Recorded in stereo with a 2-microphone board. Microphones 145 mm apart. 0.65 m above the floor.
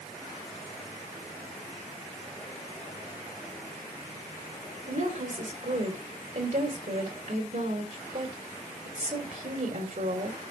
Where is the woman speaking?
65° right (ahead or behind), 3 m.